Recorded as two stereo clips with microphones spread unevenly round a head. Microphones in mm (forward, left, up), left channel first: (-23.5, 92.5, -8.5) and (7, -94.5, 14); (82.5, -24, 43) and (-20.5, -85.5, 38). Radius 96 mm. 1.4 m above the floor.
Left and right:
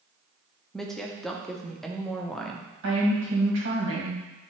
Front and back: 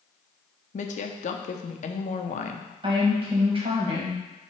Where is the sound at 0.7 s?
10° left, 0.7 m.